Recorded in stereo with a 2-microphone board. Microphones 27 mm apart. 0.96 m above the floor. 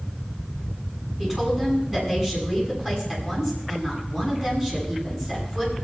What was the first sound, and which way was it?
A woman speaking, 15° right (ahead or behind).